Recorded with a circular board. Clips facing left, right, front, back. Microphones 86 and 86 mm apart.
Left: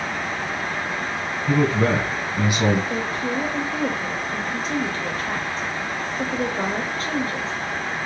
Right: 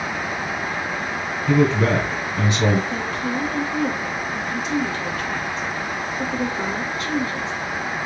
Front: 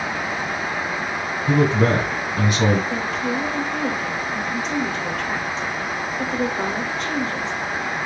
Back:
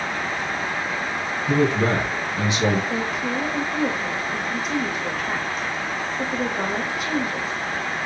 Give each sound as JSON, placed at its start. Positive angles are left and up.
{"t": 1.5, "sound": "a man speaking", "azimuth_deg": 15, "distance_m": 2.0}
{"t": 2.9, "sound": "a woman speaking", "azimuth_deg": 100, "distance_m": 1.0}